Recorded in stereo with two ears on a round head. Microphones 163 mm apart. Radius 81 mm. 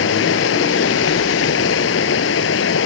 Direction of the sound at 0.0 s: 80° left.